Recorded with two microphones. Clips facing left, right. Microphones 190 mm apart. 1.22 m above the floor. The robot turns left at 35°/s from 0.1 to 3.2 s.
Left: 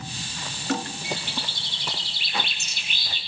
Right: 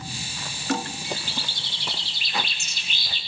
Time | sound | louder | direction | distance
1.0 | a bird | left 1 dB | 120° left | 4.5 m